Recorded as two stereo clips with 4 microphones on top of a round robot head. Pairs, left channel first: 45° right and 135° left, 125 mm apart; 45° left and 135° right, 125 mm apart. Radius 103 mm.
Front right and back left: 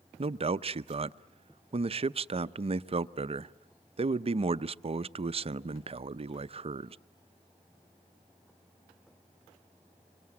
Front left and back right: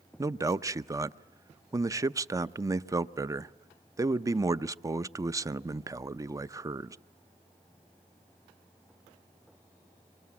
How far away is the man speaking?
About 0.7 m.